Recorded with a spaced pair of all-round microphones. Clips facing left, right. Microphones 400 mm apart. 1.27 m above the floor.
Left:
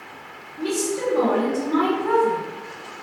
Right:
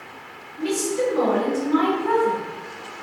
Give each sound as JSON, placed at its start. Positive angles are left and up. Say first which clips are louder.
{"t": 0.6, "sound": "a woman speaking", "louder": "right 1 dB", "side_deg": 55, "distance_m": 0.9}